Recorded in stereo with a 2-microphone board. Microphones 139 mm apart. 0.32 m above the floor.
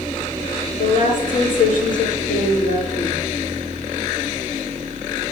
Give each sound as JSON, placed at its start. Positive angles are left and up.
{"t": 0.8, "sound": "a woman speaking", "side_deg": 70, "distance_m": 4.5}